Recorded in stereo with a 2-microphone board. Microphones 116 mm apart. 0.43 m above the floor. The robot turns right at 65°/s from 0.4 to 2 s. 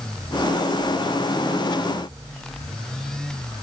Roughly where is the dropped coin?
I don't hear a dropped coin.